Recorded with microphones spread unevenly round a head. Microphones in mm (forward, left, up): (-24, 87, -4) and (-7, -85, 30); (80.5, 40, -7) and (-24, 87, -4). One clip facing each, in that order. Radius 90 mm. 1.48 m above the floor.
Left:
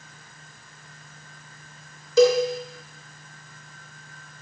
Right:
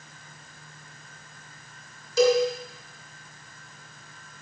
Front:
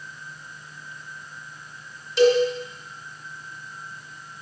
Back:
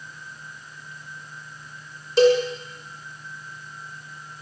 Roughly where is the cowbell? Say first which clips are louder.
Left 3 dB, back 1 dB; left.